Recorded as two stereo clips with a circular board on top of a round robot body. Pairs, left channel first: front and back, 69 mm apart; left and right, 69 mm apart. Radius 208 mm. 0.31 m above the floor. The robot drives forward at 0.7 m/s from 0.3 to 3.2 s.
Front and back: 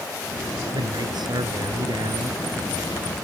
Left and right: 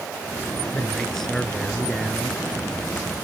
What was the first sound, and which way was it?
A man speaking, 170° left.